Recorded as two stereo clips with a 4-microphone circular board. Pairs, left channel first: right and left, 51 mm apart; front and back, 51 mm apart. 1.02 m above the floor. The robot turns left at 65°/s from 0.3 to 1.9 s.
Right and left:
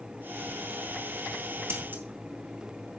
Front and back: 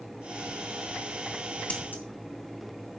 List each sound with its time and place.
1.7 s scissors: 60° left, 1.8 m; by 2.0 s 45° left, 1.8 m